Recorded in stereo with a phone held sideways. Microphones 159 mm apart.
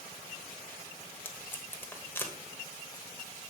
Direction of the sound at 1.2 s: 15° left (ahead or behind).